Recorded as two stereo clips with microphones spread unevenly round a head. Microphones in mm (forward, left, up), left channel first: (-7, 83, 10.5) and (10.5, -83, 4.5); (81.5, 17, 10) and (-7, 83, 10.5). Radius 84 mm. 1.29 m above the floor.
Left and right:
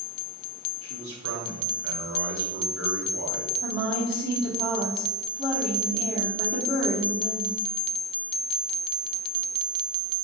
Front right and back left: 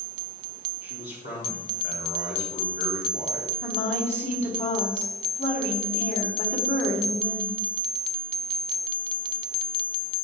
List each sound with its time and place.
0.8 s a man speaking: 75° right, 3.5 m
3.6 s a woman speaking: 20° right, 3 m